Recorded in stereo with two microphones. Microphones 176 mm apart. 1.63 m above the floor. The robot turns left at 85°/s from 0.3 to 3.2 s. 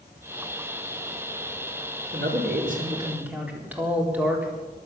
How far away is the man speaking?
About 4 m.